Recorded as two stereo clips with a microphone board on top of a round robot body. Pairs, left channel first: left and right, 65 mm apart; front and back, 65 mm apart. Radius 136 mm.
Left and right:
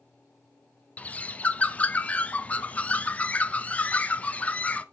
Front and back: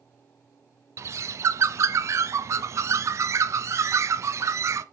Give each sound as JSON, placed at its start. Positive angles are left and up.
{"t": 1.0, "sound": "a bird", "azimuth_deg": 155, "distance_m": 0.8}